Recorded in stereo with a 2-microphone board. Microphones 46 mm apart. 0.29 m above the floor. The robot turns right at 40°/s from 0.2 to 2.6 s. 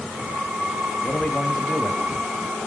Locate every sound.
1.0 s a man speaking: 15° left (ahead or behind), 1.3 m; by 2.1 s 30° left (ahead or behind), 1.3 m